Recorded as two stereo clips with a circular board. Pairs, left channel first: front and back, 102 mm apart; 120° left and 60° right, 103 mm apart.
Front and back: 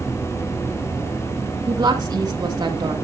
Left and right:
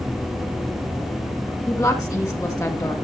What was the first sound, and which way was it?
A woman speaking, 155° left.